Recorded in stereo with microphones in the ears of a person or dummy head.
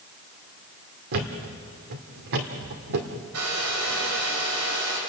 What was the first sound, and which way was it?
A thud, 55° right (ahead or behind).